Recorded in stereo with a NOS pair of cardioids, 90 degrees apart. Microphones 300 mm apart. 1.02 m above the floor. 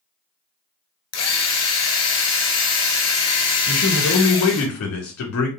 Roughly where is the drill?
Ahead left.